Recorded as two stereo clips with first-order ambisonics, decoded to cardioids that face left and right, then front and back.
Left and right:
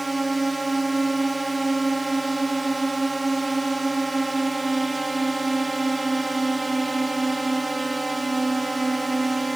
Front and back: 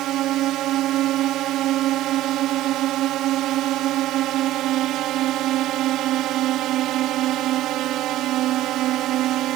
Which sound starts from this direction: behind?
A drone, at 0.0 s.